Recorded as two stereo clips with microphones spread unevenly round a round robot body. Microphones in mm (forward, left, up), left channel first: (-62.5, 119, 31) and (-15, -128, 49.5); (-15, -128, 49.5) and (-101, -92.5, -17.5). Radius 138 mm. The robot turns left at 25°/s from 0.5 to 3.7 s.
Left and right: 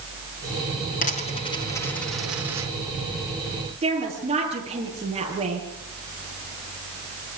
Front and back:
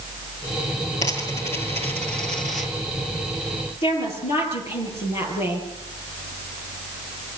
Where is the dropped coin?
40° left, 3 m; by 2.7 s straight ahead, 3 m.